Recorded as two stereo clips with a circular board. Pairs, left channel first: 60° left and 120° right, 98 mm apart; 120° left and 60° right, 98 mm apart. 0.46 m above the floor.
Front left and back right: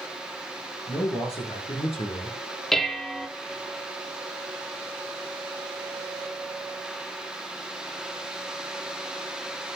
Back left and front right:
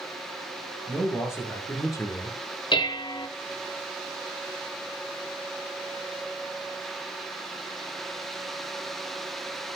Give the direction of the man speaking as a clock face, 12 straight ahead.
10 o'clock.